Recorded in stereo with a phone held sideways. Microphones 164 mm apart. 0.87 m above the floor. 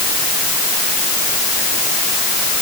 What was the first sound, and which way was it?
Only background noise.